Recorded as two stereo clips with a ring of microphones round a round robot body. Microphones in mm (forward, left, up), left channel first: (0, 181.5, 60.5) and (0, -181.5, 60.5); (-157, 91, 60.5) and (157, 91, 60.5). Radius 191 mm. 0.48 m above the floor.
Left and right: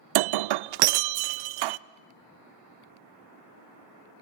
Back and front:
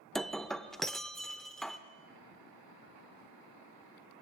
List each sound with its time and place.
0.1 s breaking glass: 90° right, 0.5 m